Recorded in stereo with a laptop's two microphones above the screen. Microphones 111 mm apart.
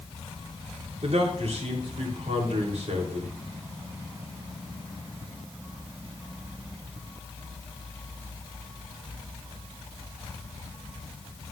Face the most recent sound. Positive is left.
turn(degrees=-75)  # may be behind; listen again after turning